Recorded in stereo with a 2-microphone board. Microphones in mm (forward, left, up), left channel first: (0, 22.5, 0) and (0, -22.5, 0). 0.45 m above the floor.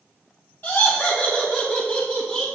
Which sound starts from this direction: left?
Laughter, at 0.6 s.